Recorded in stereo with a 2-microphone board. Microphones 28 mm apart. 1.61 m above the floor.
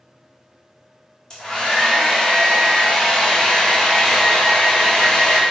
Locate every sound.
1.3 s a hair dryer: 30° left (ahead or behind), 1.0 m